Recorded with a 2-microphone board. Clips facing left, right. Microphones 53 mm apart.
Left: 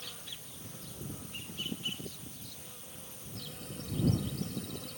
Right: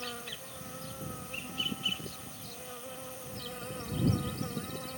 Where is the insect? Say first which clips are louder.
Right 7 dB; 75° right (ahead or behind).